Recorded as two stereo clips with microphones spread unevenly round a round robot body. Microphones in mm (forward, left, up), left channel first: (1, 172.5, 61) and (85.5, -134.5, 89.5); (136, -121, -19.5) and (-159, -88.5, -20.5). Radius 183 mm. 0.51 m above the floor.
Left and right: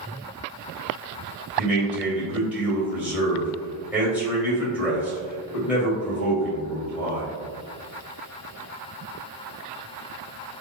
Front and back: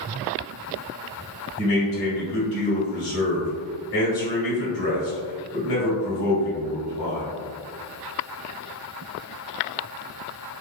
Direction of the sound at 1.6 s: 15° left.